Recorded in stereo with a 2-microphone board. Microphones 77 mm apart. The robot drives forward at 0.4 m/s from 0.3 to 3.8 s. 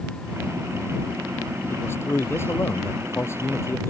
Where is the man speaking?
35° left (ahead or behind).